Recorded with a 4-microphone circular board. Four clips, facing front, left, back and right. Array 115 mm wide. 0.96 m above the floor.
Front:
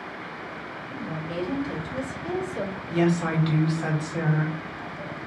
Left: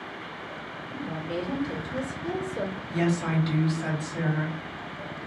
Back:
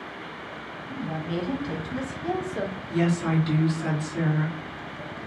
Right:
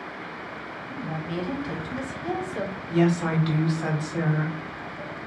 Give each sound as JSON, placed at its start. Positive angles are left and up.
{"t": 0.9, "sound": "a woman speaking", "azimuth_deg": -130, "distance_m": 1.1}
{"t": 2.9, "sound": "a woman speaking", "azimuth_deg": -50, "distance_m": 1.2}